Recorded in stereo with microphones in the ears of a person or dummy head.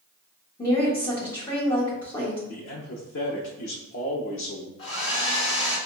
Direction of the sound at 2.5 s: 70° left (ahead or behind).